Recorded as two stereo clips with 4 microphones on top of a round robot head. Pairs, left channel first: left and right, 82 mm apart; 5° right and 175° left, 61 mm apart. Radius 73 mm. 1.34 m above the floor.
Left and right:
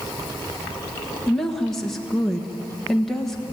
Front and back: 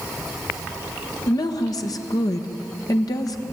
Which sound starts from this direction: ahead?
A woman speaking, at 1.3 s.